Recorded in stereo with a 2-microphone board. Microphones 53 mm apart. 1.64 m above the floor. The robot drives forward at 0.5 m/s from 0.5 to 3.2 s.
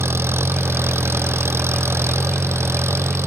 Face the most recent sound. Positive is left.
turn(degrees=-55)  # may be behind; listen again after turning